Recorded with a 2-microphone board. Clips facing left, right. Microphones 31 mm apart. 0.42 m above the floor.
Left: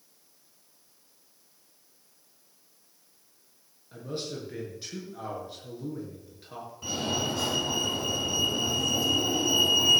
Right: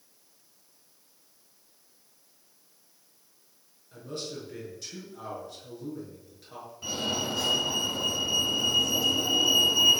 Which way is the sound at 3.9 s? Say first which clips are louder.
Left 2 dB; 20° left (ahead or behind).